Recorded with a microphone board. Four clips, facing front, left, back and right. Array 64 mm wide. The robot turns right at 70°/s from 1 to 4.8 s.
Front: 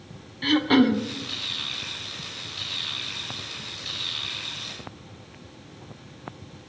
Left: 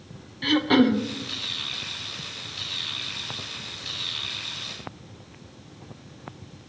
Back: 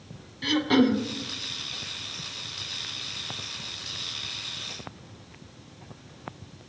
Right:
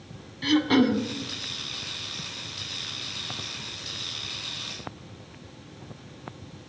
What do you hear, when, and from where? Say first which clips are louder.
0.4 s throat clearing: left 1 dB, front 2 dB; 35° left, 0.6 m; by 1.0 s 40° left, 0.6 m